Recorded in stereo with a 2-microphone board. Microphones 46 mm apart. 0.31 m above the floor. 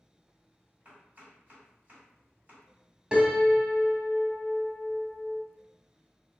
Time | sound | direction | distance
0.8 | chopping | 35° right (ahead or behind) | 1.8 m
3.1 | a piano | 20° right (ahead or behind) | 0.7 m